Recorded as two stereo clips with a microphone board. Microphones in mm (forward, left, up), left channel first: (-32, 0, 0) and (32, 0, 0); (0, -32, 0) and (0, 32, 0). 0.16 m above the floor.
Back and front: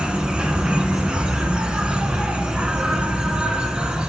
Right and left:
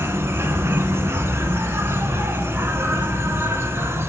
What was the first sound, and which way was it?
An insect, 70° left.